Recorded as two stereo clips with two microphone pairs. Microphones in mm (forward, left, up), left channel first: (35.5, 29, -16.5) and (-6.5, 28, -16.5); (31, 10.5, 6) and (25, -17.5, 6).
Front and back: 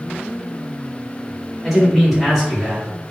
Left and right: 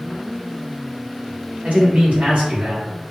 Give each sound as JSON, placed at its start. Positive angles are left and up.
{"t": 1.6, "sound": "a man speaking", "azimuth_deg": -95, "distance_m": 1.5}